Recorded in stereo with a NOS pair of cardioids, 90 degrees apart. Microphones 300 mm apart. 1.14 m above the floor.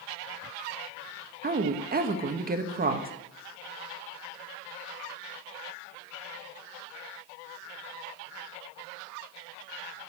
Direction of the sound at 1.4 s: 30° right.